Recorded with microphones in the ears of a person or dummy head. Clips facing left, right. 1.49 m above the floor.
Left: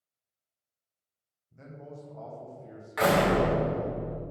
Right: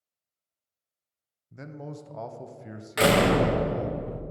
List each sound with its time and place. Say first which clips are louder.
1.5 s a man speaking: right 5 dB; 75° right (ahead or behind), 0.8 m
3.0 s a door slam: right 2 dB; 35° right (ahead or behind), 0.7 m